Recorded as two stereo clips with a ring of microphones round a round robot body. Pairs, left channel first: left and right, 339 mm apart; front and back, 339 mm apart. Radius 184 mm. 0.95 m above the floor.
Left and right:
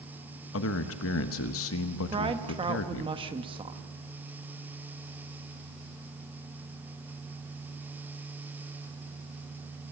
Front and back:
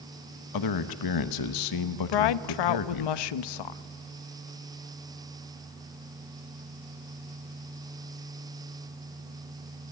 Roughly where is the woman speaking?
Ahead.